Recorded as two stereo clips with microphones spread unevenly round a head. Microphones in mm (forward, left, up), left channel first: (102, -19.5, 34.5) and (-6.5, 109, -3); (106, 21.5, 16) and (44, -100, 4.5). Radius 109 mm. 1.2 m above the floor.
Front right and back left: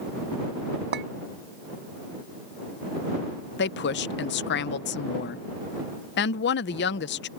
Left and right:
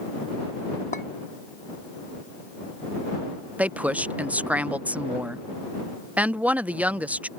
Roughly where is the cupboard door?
I don't hear a cupboard door.